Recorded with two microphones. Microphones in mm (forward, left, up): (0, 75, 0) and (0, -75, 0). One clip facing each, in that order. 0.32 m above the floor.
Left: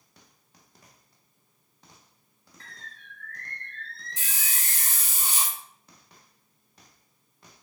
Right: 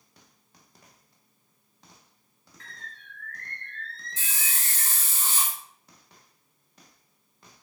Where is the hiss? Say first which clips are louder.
Right 1 dB; 15° left (ahead or behind), 0.6 m.